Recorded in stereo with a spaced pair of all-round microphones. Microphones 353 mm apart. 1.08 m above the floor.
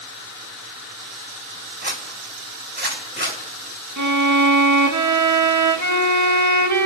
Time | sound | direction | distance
1.8 | a zipper | 30° right (ahead or behind) | 2.5 m
4.0 | a violin | 55° right (ahead or behind) | 0.7 m